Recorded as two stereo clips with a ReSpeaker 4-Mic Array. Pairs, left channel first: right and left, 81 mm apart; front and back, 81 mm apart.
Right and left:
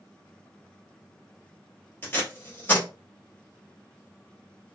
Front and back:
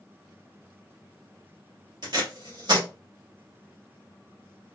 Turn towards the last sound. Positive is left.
turn(degrees=-155)